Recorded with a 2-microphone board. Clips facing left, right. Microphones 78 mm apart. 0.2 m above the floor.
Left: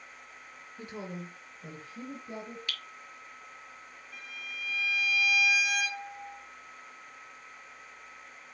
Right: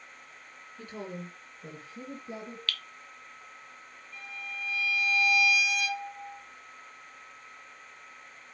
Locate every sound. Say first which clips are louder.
0.8 s a woman speaking: right 1 dB; 20° left (ahead or behind), 2.5 m; by 2.6 s 15° right (ahead or behind), 3.5 m
2.7 s dripping: right 3 dB; 20° left (ahead or behind), 1.2 m
4.1 s a violin: right 3 dB; 65° left (ahead or behind), 3 m